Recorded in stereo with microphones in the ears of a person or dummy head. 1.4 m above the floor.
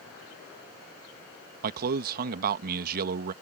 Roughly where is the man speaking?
Right.